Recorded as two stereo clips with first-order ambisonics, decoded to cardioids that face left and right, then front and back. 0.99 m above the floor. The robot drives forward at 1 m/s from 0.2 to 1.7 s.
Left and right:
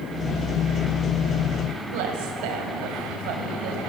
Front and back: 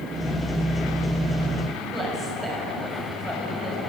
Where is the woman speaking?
100° right, 6 m.